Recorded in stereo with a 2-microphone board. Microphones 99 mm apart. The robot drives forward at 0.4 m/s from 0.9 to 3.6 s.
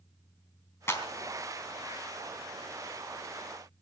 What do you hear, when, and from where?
0.9 s a clap: 25° left (ahead or behind), 3.5 m